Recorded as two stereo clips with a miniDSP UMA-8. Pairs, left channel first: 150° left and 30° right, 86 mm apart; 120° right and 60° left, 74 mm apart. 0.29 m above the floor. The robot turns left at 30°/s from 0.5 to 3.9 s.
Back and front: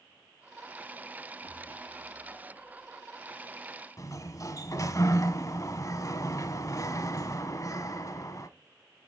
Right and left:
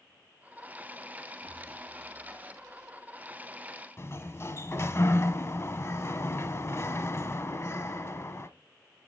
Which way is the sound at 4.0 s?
170° right.